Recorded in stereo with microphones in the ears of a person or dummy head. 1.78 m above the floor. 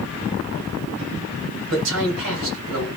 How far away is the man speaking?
About 2 m.